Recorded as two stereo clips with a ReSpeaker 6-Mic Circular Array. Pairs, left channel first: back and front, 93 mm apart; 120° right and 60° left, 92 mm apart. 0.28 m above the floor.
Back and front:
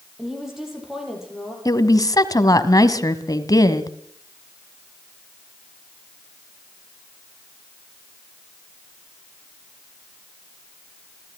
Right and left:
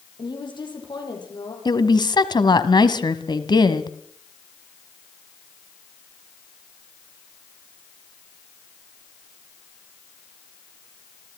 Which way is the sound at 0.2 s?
85° right.